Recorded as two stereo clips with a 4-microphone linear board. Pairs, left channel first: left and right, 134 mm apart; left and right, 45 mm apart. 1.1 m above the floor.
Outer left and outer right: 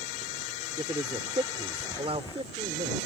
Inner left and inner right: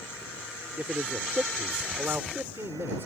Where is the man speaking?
35° right (ahead or behind); by 3.1 s 55° right (ahead or behind).